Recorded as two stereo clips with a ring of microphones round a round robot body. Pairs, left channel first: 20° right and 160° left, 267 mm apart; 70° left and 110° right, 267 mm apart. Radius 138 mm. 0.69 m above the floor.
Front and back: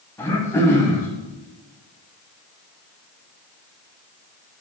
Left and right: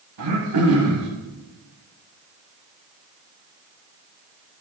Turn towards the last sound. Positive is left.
turn(degrees=-105)